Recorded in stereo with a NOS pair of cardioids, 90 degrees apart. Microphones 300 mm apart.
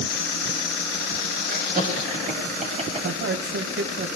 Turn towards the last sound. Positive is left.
turn(degrees=-40)